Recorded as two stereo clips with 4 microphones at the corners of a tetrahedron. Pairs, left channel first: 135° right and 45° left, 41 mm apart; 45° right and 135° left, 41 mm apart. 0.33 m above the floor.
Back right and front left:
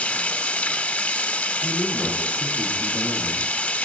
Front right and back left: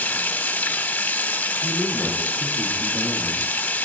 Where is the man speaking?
140° left, 6.5 m.